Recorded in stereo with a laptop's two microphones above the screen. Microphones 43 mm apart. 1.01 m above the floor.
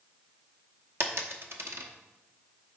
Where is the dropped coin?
65° right (ahead or behind), 0.8 m.